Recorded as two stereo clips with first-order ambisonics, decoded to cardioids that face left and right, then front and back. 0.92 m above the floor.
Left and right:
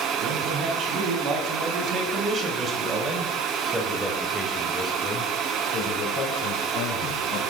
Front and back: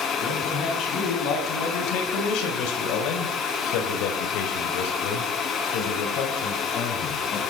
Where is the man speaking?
45° right, 7.5 m; by 7.4 s 50° left, 5.5 m.